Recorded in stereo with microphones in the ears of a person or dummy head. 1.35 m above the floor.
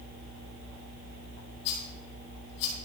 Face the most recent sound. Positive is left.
turn(degrees=75)  # may be behind; listen again after turning